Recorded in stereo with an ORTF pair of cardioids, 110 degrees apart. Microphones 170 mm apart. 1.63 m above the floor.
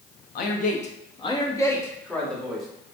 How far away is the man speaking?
About 0.8 m.